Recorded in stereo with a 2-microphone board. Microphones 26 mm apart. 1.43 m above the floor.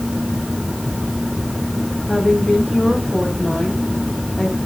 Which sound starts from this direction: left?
A woman speaking, at 2.1 s.